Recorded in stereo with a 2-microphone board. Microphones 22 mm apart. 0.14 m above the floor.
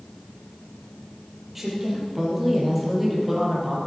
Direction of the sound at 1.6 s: 10° right (ahead or behind).